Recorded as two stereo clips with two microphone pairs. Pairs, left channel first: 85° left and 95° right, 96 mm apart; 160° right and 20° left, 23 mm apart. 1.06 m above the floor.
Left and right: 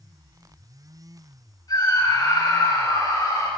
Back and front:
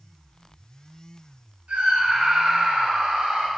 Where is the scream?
35° left, 6.5 m.